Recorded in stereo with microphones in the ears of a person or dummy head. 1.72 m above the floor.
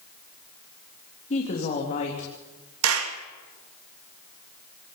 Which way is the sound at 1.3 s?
40° left (ahead or behind).